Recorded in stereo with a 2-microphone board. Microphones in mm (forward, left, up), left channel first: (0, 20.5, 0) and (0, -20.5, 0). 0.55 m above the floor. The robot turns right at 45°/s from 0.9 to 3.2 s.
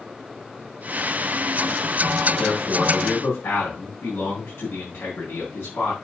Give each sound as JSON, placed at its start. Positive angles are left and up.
{"t": 2.4, "sound": "a man speaking", "azimuth_deg": 40, "distance_m": 5.0}